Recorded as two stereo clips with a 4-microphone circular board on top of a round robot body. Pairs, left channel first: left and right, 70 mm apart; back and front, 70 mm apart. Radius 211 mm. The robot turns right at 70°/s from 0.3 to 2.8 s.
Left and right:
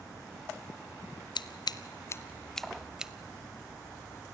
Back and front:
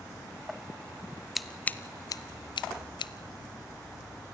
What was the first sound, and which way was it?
Scissors, 90° left.